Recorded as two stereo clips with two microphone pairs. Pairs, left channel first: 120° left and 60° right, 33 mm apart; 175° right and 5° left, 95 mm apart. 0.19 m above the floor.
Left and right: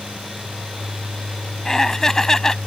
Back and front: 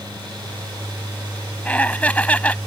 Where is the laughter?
155° left.